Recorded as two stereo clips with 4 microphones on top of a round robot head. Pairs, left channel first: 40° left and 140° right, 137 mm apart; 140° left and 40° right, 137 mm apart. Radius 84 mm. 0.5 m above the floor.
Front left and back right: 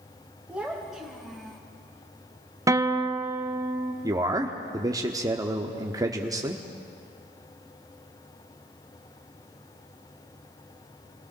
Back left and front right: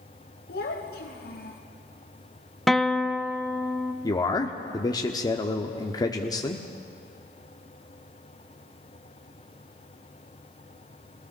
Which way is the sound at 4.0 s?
Straight behind.